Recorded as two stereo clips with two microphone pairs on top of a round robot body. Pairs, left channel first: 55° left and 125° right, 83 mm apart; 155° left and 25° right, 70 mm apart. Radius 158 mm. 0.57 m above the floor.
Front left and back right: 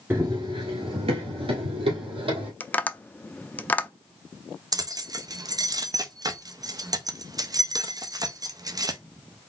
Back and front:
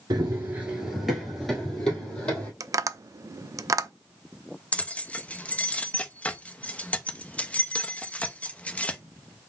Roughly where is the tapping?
Ahead.